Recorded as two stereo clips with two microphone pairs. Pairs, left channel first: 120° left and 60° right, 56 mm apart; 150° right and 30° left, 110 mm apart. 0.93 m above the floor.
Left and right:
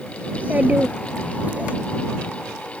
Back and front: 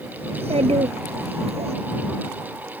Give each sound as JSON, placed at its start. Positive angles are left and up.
{"t": 0.3, "sound": "a child speaking", "azimuth_deg": 5}